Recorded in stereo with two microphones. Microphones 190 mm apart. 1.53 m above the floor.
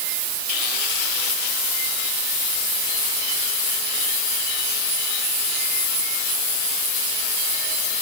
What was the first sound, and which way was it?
Only background noise.